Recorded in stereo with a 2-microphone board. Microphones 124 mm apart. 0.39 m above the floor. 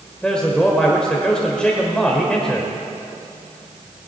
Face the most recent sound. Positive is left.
turn(degrees=5)  # may be behind; listen again after turning